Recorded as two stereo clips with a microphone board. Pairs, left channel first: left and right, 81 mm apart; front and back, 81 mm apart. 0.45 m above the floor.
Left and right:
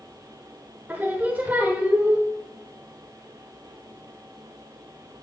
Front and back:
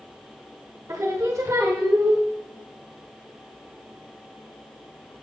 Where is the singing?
150° right, 1.3 m.